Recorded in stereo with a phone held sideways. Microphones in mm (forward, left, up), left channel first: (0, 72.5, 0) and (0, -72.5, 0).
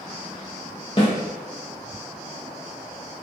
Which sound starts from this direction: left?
A snare drum, at 1.0 s.